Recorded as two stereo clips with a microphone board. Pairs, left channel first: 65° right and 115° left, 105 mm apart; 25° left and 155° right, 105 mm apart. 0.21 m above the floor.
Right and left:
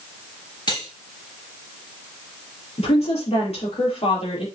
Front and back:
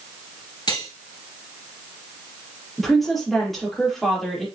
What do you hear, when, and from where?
0.7 s cutlery clinking: 25° right, 2.5 m
2.8 s a woman speaking: 65° right, 4.5 m